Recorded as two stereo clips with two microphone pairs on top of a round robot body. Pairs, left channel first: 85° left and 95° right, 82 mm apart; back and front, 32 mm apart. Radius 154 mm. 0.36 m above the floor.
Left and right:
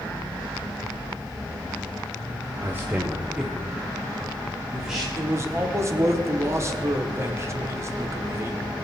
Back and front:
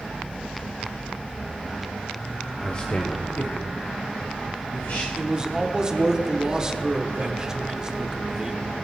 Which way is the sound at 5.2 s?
65° right.